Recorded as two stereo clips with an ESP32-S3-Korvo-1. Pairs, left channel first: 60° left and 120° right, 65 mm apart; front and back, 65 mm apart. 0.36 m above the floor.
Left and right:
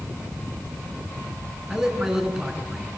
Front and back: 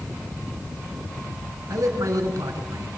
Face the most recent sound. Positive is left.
turn(degrees=155)